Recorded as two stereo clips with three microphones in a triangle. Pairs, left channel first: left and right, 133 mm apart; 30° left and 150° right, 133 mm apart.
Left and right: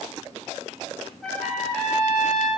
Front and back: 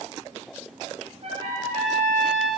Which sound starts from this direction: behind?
A trumpet, at 1.2 s.